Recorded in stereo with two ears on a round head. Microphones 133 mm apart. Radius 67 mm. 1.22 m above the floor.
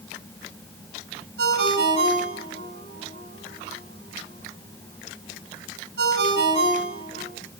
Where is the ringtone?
80° right, 6 m.